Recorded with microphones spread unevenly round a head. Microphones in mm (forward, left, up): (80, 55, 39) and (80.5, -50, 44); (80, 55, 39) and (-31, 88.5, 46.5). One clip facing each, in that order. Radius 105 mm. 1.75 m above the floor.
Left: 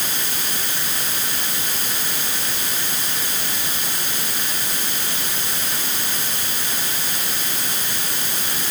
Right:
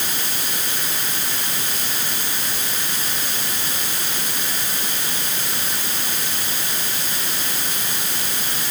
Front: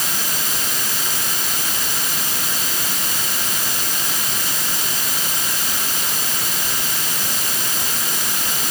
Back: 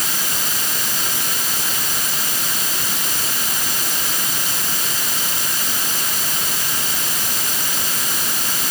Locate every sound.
Only background noise.